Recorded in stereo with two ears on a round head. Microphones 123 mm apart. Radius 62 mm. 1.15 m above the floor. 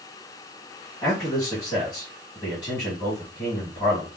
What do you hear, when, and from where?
1.0 s a man speaking: 25° left (ahead or behind), 1.9 m